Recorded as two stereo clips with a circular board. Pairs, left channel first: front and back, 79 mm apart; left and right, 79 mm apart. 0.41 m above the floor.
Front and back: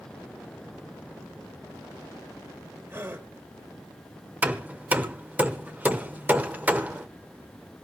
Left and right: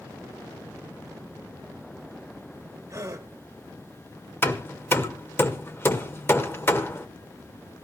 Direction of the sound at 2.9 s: 135° right.